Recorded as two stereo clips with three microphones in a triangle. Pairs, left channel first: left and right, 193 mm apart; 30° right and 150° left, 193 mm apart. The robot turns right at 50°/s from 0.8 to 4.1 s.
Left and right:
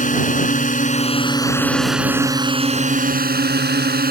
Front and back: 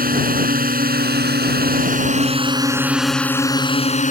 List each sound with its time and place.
0.0 s a drone: 125° left; by 4.1 s 70° right